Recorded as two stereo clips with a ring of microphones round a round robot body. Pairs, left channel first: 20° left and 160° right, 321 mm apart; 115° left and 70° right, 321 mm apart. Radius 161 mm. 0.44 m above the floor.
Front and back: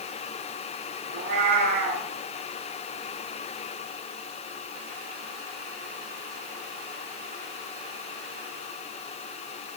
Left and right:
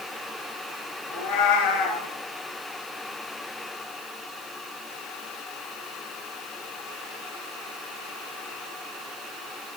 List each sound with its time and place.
1.1 s a cat meowing: 140° left, 3 m